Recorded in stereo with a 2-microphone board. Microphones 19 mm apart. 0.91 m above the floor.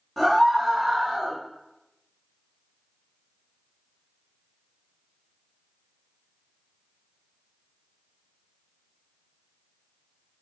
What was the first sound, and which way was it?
A scream, centre (ahead or behind).